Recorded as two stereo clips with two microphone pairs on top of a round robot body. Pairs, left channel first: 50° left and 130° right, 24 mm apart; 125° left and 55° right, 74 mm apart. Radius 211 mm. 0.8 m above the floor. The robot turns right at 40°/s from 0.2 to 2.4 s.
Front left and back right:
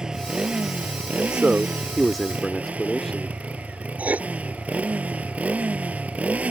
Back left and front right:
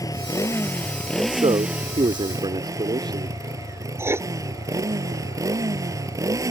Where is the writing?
110° right.